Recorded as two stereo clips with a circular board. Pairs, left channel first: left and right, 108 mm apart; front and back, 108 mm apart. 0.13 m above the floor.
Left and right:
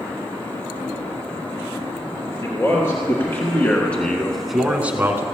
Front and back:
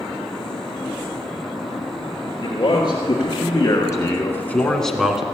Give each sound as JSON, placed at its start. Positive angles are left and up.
{"t": 2.4, "sound": "a man speaking", "azimuth_deg": 35, "distance_m": 2.5}